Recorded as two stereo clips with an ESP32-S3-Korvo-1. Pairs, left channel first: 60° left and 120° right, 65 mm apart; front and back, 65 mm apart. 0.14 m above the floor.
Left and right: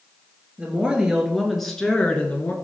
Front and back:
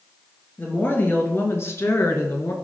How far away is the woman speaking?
About 2.5 m.